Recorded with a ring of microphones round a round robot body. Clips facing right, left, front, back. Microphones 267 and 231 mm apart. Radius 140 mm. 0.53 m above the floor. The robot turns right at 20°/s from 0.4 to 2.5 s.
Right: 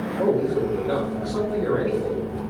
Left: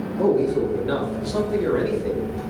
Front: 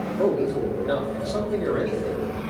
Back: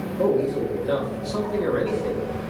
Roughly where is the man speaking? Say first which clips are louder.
Left 2 dB, back 1 dB; left.